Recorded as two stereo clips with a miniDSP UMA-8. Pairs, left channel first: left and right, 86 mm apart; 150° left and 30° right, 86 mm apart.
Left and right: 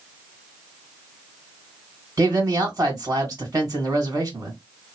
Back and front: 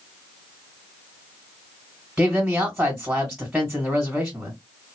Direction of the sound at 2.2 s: 115° right.